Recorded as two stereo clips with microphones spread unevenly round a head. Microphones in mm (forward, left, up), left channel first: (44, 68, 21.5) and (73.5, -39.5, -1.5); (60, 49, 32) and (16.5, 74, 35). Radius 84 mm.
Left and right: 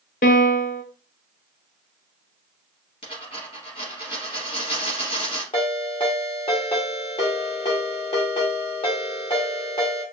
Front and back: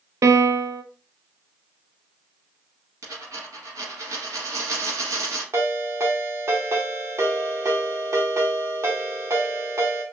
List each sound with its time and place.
0.2 s a piano: 130° left, 0.5 m
3.0 s a dropped coin: 155° left, 3 m
5.5 s a ringtone: 140° left, 1.3 m